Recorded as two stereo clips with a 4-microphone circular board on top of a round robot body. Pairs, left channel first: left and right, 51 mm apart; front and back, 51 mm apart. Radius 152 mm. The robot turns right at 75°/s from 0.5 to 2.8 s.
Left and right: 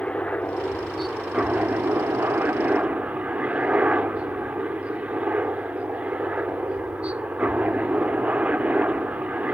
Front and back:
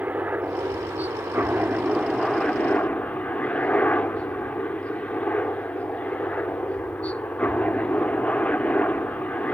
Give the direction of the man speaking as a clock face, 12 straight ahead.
I don't hear a man speaking.